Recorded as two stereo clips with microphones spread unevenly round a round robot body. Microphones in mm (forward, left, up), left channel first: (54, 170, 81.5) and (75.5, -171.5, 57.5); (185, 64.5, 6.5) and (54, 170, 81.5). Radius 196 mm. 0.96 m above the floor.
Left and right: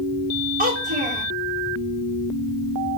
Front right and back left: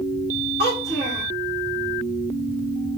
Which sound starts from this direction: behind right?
A child speaking, at 0.6 s.